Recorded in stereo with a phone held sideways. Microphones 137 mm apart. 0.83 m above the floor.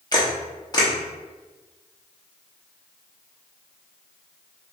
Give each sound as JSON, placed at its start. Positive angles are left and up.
{"t": 0.1, "sound": "a camera shutter", "side_deg": 30, "distance_m": 0.8}